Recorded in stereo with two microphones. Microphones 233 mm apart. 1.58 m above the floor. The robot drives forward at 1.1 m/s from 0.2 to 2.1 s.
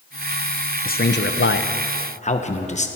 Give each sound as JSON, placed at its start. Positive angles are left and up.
{"t": 0.8, "sound": "a man speaking", "side_deg": 40, "distance_m": 0.9}